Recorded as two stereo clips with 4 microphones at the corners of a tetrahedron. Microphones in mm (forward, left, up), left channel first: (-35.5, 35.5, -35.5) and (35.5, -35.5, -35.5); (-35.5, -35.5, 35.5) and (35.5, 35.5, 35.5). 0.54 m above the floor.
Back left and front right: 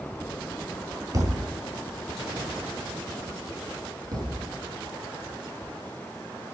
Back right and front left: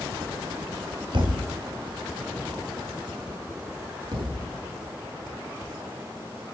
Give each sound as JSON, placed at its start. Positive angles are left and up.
{"t": 1.1, "sound": "a thud", "azimuth_deg": 10, "distance_m": 2.0}
{"t": 4.1, "sound": "a thud", "azimuth_deg": 5, "distance_m": 4.0}